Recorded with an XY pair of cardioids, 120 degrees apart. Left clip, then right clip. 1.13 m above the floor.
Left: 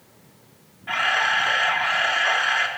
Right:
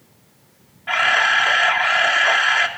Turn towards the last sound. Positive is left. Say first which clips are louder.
# right 5 dB
turn(degrees=-30)